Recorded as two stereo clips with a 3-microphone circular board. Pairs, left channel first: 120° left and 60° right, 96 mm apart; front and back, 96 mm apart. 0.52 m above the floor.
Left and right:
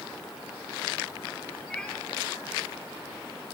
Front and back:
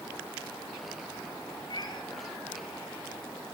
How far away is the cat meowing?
About 3 m.